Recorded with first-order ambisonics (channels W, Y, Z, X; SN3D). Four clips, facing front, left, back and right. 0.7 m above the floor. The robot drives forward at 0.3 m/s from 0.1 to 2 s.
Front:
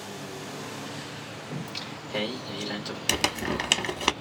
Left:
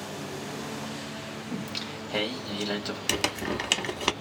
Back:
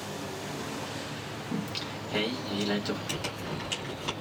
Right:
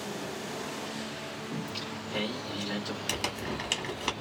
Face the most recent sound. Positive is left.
turn(degrees=30)